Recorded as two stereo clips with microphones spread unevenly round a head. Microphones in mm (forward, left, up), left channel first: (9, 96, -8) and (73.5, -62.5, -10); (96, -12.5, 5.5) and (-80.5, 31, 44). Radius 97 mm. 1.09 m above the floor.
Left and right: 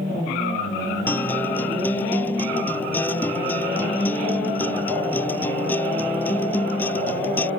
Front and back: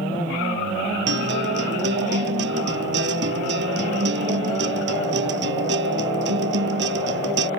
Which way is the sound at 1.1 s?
165° right.